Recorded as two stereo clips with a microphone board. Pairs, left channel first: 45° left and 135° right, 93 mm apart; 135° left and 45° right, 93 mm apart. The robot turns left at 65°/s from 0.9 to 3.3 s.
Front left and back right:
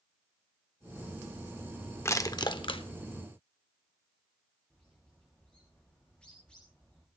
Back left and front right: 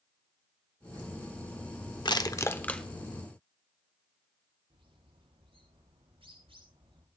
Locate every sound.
2.0 s crushing: 105° left, 1.2 m; by 2.8 s 55° left, 1.2 m
4.7 s a bird: 35° right, 7.5 m